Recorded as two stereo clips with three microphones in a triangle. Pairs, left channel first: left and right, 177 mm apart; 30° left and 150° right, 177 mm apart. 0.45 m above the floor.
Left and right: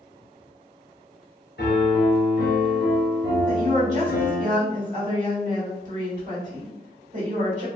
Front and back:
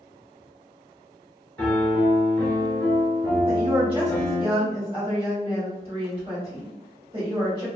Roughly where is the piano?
Left.